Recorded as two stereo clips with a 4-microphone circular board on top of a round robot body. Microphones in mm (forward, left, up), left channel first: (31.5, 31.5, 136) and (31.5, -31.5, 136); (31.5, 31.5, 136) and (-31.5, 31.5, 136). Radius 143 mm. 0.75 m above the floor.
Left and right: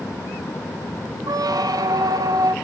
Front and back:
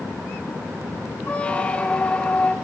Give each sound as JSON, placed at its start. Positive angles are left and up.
{"t": 1.3, "sound": "a squeak", "azimuth_deg": -70, "distance_m": 1.3}